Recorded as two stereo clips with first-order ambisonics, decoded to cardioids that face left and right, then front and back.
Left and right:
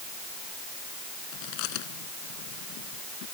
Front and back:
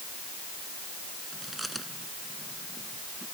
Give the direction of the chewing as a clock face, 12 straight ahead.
9 o'clock.